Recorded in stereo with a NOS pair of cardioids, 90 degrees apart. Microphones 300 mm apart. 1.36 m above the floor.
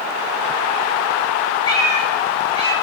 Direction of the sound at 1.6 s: 15° left.